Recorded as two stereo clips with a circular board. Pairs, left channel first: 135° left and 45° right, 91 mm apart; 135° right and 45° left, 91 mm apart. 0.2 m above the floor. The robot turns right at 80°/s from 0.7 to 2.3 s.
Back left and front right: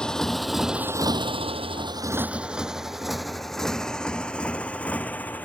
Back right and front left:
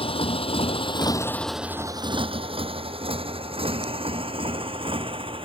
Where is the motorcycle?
145° right; by 5.5 s 65° left.